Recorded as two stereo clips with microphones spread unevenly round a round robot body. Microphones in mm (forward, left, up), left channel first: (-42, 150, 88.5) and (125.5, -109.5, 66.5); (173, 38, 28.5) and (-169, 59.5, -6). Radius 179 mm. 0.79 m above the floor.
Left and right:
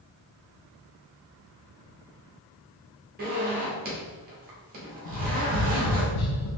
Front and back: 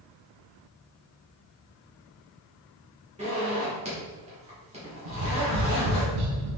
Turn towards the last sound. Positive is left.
turn(degrees=160)